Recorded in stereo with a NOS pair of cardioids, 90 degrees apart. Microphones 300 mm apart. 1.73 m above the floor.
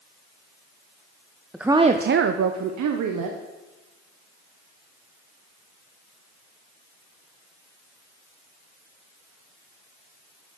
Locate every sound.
1.5 s a woman speaking: straight ahead, 0.8 m; by 3.4 s 80° right, 1.7 m